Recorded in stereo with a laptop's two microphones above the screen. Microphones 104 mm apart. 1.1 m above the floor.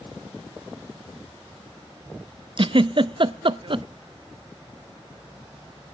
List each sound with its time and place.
2.6 s a giggle: 55° right (ahead or behind), 0.5 m